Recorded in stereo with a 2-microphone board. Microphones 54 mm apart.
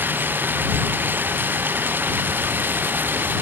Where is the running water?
40° right (ahead or behind).